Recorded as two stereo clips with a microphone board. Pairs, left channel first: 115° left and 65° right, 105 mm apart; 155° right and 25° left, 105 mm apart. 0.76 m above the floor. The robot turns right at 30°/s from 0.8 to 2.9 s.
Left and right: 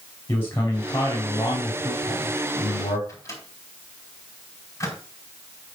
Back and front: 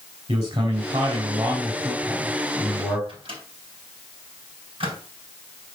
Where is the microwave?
55° left, 4.5 m.